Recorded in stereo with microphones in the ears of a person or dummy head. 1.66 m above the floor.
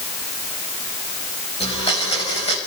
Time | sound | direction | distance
1.6 | a blender | 30° left (ahead or behind) | 3.5 m